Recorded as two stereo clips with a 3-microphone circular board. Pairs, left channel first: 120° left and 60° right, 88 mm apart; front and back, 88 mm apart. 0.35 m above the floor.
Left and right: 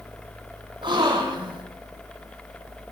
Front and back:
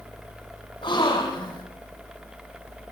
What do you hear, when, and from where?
0.8 s a gasp: 30° right, 6 m